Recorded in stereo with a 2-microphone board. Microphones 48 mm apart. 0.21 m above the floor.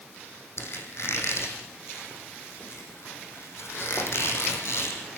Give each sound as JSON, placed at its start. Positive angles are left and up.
{"t": 0.6, "sound": "a squeak", "side_deg": 65, "distance_m": 4.5}